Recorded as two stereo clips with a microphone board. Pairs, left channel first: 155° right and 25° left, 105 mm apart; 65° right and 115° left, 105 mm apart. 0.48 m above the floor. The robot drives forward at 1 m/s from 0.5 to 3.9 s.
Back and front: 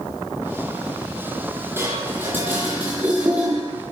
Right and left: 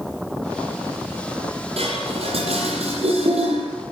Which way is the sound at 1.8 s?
90° left.